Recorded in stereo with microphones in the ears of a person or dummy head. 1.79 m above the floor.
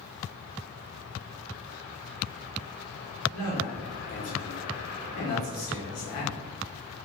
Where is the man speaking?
35° left (ahead or behind), 0.9 m.